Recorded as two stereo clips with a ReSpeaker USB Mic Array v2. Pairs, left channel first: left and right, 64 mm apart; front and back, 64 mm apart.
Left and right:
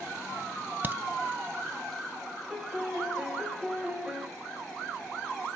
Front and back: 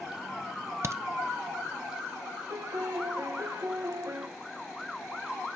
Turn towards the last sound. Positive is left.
turn(degrees=-170)